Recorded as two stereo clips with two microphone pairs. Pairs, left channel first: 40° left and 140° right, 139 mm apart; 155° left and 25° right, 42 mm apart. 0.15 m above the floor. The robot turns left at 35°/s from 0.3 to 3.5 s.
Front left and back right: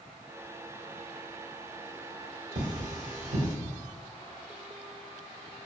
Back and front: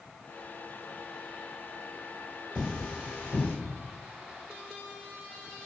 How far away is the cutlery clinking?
About 1.6 m.